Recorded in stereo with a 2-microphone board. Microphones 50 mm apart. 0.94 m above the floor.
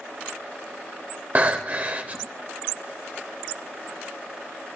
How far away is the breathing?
About 0.7 m.